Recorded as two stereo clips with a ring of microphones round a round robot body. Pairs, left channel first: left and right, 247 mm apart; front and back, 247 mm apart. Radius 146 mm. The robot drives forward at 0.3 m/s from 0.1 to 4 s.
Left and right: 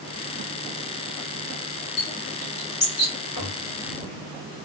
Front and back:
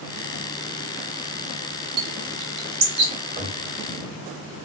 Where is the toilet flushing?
155° left, 1.5 m.